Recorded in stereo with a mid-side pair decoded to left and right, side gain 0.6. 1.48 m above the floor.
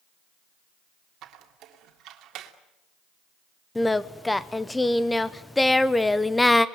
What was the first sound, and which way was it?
A squeak, 60° right.